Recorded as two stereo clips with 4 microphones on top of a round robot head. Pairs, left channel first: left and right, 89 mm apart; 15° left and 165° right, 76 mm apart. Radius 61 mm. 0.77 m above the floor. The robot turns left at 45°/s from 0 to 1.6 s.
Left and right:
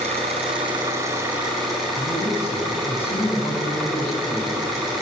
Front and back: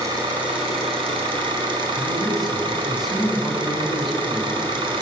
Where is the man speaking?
110° left, 7.5 m.